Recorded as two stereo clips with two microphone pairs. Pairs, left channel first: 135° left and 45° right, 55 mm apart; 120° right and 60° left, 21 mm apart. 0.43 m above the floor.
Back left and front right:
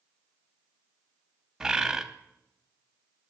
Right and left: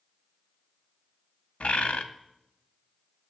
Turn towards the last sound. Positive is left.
turn(degrees=-120)